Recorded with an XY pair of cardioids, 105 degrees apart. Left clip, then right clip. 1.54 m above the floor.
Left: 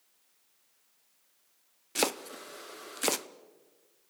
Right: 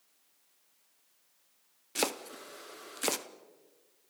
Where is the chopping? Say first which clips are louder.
Left 2 dB; 15° left, 0.9 m.